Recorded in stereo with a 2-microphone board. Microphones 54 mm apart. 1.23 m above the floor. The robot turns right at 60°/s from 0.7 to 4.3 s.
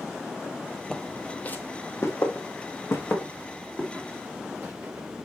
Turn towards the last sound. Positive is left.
turn(degrees=-25)  # may be behind; listen again after turning